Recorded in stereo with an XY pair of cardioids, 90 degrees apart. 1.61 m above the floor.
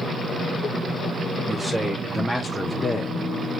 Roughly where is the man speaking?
Ahead.